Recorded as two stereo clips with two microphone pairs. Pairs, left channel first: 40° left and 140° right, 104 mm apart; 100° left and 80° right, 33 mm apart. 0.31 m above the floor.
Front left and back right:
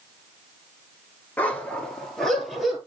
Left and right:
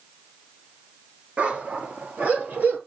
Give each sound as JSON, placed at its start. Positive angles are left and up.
{"t": 1.4, "sound": "a dog barking", "azimuth_deg": -35, "distance_m": 1.5}